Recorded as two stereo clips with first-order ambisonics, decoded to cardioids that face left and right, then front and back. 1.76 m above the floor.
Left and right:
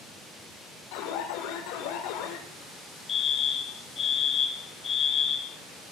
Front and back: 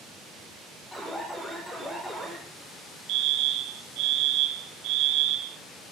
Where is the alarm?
90° left, 6.5 m.